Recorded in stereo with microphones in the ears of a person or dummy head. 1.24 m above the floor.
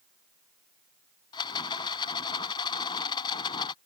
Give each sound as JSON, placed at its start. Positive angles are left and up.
{"t": 1.3, "sound": "a rattle", "side_deg": 25}